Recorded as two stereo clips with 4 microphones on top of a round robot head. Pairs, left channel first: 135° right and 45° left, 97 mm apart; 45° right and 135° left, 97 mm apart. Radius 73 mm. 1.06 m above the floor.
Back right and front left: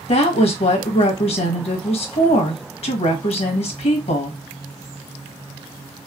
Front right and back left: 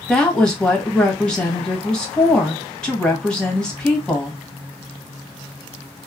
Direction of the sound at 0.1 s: 125° right.